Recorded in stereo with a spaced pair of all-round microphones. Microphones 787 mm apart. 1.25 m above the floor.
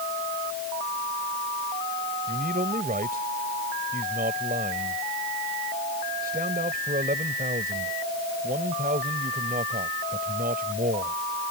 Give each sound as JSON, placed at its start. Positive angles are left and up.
{"t": 2.3, "sound": "a man speaking", "side_deg": -10}